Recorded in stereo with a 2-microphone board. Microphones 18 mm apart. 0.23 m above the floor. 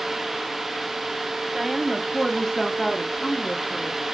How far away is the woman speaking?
About 1.0 m.